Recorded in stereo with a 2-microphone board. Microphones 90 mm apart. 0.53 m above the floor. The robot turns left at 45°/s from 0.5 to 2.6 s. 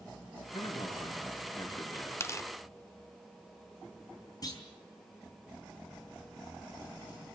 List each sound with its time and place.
0.5 s a man speaking: 105° left, 6 m; by 2.1 s 30° left, 6 m
2.2 s tearing paper: 30° left (ahead or behind), 0.7 m; by 2.5 s 40° left (ahead or behind), 0.7 m
4.4 s a clunk: 45° left (ahead or behind), 4 m